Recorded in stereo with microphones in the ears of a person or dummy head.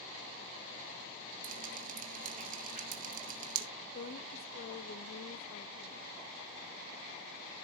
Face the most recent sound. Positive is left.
turn(degrees=50)  # may be behind; listen again after turning